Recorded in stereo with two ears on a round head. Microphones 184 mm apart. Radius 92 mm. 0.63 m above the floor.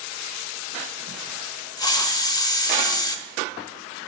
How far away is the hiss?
About 0.8 m.